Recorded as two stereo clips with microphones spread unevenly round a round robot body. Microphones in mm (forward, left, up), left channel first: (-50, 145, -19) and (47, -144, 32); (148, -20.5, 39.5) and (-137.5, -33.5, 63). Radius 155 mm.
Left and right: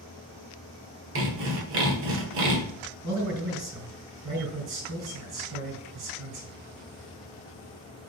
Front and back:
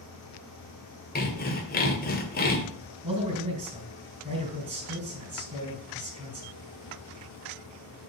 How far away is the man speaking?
About 4.5 m.